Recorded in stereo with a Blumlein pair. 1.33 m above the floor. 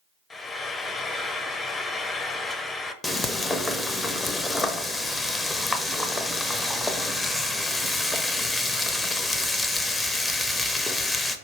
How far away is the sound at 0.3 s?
About 0.5 m.